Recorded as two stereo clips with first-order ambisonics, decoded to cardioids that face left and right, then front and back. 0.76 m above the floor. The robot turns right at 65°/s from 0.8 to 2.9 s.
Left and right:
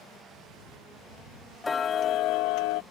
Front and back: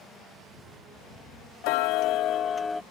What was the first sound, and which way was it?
Ticking, 10° left.